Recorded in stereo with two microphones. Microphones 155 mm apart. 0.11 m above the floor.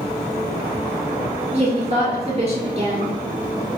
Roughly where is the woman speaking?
Right.